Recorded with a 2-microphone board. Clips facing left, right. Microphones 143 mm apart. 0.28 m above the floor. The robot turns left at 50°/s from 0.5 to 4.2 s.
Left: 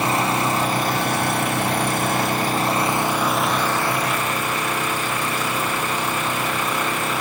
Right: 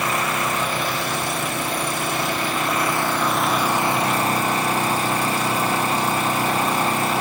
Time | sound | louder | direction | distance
0.0 | an engine running | left 3 dB | 145° left | 1.7 m